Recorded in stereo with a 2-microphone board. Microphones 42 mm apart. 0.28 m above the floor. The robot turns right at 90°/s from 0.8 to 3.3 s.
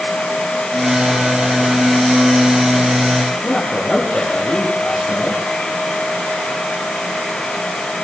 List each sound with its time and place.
3.4 s a man speaking: 15° left (ahead or behind), 10 m